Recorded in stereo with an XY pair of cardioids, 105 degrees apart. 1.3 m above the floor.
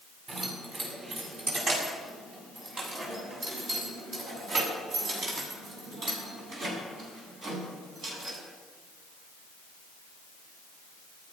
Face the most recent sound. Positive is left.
turn(degrees=-75)